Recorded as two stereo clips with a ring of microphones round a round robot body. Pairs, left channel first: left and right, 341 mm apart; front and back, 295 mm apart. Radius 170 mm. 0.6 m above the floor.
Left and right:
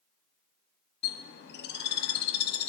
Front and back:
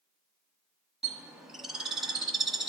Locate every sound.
1.0 s a bird: 95° left, 0.9 m